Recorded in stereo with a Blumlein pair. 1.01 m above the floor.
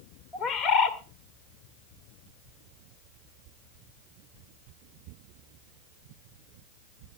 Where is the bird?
25° left, 1.5 m.